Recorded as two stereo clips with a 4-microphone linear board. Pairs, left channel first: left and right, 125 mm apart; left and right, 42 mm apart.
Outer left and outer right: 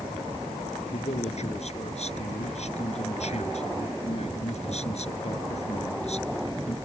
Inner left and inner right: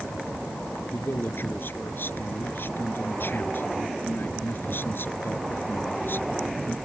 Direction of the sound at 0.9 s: 60° left (ahead or behind).